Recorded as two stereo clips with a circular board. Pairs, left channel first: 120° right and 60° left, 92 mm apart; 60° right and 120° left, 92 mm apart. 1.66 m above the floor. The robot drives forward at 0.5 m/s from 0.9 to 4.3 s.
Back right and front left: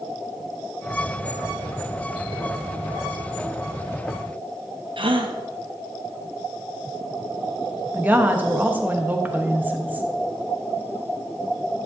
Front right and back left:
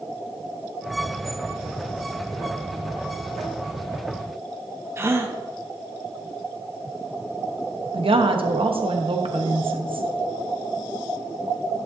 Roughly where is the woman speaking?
Behind left.